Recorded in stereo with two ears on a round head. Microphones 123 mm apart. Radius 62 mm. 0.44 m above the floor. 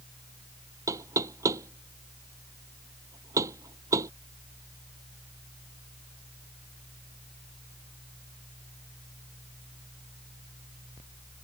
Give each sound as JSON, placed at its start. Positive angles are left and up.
{"t": 0.9, "sound": "knocking", "side_deg": -25}